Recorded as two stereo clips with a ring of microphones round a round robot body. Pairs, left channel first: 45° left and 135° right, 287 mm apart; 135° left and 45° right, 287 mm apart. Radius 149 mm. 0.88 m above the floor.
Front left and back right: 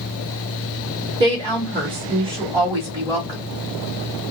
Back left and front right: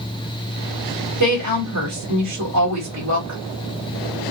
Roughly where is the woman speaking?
Ahead right.